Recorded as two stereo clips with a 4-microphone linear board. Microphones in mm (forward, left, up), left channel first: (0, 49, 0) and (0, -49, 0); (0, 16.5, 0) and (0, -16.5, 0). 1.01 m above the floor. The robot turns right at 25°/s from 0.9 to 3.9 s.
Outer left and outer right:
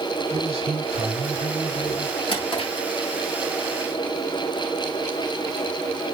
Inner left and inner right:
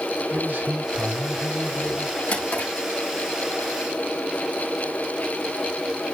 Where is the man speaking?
105° right, 8 m; by 2.2 s 75° right, 8 m.